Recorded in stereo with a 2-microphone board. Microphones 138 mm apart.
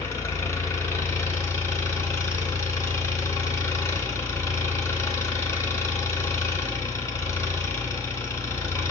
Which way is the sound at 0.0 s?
20° left (ahead or behind).